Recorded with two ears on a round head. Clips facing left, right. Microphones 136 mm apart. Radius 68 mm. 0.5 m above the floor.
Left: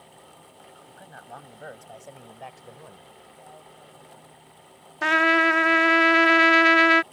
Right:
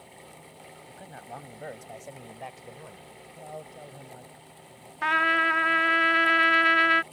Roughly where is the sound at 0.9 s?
Centre.